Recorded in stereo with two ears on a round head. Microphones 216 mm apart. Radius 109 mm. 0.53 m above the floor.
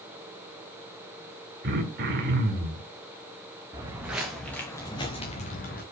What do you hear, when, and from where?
1.6 s throat clearing: 45° right (ahead or behind), 2 m
3.7 s footsteps: 15° right (ahead or behind), 3 m; by 5.8 s 40° left (ahead or behind), 3.5 m